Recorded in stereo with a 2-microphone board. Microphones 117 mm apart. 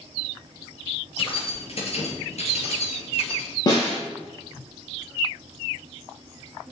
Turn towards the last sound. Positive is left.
turn(degrees=35)  # may be behind; listen again after turning